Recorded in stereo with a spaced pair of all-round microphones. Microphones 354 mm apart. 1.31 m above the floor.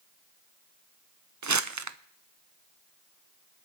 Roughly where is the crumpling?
Right.